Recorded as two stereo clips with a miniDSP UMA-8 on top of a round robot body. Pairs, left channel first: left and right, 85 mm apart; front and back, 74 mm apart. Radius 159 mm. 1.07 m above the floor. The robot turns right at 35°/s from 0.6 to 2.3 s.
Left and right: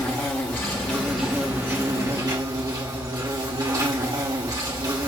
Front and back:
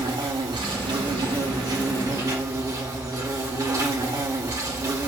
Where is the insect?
160° left, 2 m; by 5.1 s 140° right, 2 m.